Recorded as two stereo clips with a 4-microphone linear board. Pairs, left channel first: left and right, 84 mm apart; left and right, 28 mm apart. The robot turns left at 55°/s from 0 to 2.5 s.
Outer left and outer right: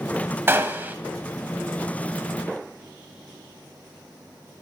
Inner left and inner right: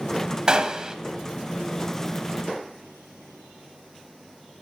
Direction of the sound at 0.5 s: 25° right (ahead or behind).